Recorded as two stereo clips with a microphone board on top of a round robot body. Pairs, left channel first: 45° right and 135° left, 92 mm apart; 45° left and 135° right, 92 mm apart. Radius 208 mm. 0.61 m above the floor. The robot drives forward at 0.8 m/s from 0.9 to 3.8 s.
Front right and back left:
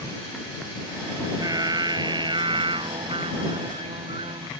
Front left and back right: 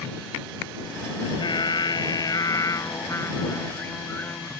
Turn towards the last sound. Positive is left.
turn(degrees=115)